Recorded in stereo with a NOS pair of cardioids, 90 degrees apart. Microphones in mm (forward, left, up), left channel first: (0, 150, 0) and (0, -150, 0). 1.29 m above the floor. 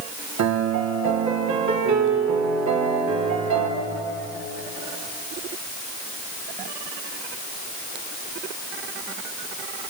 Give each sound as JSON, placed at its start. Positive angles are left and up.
{"t": 0.4, "sound": "a piano", "azimuth_deg": -65, "distance_m": 3.5}